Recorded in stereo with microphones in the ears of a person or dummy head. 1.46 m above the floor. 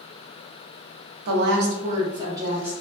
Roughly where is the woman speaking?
Right.